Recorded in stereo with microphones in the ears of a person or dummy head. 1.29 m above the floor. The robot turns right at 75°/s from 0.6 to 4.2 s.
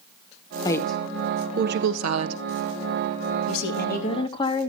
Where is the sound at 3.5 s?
95° left, 2.5 m; by 4.7 s 150° left, 2.5 m.